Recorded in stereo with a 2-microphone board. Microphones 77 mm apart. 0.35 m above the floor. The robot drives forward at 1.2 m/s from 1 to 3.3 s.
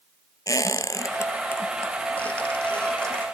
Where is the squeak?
50° left (ahead or behind), 1.0 m; by 3.2 s 10° left (ahead or behind), 3.5 m.